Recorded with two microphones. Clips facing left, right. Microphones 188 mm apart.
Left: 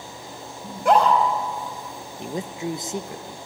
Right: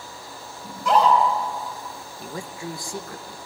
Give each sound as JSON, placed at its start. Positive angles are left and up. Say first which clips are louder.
{"t": 0.6, "sound": "a scream", "louder": "left 1 dB", "side_deg": 60, "distance_m": 4.5}
{"t": 2.2, "sound": "a man speaking", "louder": "left 5 dB", "side_deg": 20, "distance_m": 0.6}